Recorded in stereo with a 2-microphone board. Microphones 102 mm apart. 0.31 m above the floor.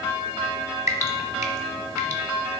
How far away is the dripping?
About 1.1 m.